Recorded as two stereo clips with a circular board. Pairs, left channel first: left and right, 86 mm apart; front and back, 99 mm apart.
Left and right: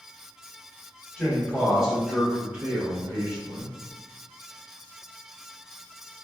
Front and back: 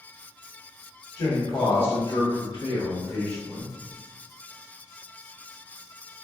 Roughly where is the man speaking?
Ahead.